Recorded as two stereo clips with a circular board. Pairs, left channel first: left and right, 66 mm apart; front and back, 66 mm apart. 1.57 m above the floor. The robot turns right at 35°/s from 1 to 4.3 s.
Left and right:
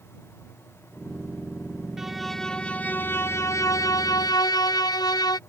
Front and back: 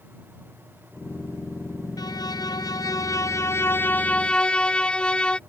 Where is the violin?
5° right; by 5.4 s 75° left.